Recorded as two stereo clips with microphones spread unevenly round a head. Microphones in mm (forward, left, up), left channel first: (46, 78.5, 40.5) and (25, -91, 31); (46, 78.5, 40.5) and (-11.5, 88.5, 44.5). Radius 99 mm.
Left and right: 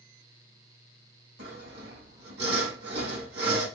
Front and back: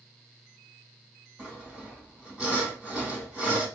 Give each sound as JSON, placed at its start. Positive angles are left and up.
{"t": 1.4, "sound": "sawing", "azimuth_deg": -110, "distance_m": 2.5}